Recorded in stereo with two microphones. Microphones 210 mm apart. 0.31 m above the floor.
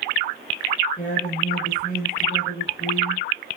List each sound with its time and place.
1.0 s a woman speaking: 45° left (ahead or behind), 6 m